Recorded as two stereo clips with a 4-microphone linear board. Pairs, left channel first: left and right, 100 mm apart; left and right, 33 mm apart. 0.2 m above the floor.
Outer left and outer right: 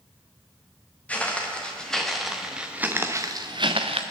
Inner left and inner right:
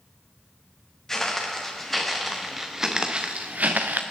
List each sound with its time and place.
1.1 s footsteps: 15° left (ahead or behind), 3 m; by 4.0 s 75° right (ahead or behind), 1.3 m